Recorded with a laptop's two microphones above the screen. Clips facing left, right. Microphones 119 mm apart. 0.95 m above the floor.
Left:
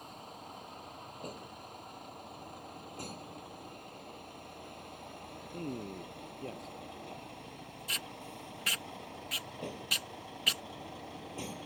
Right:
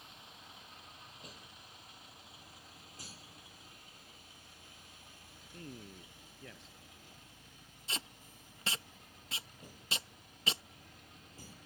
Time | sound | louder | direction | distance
0.0 | a vehicle | left 9 dB | 45° left (ahead or behind) | ?
5.5 | a man speaking | left 10 dB | 40° left (ahead or behind) | ?
7.9 | tape being pulled | left 1 dB | 25° right (ahead or behind) | ?